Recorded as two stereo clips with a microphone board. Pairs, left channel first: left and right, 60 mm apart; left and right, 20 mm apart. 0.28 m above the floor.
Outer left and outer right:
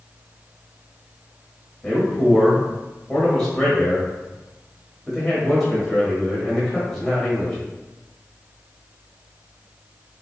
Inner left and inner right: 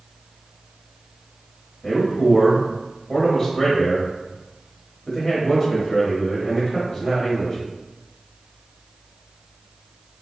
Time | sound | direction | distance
1.8 | a man speaking | 5° left (ahead or behind) | 1.2 m